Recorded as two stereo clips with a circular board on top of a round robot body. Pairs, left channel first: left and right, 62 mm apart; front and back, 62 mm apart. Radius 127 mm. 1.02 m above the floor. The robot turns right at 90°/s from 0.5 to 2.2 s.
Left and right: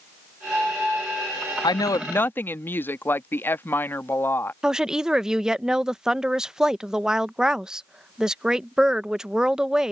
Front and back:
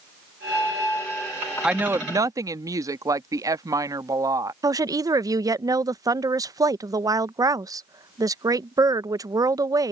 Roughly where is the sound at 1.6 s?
Left.